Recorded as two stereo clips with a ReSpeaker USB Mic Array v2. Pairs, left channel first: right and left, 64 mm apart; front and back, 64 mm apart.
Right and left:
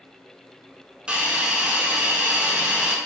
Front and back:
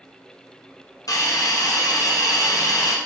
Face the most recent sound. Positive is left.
turn(degrees=15)